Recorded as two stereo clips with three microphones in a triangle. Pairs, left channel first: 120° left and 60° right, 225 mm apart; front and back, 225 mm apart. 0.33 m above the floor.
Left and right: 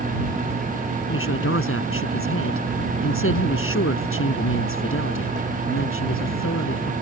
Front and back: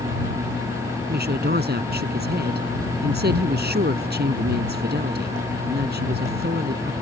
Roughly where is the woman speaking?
Behind left.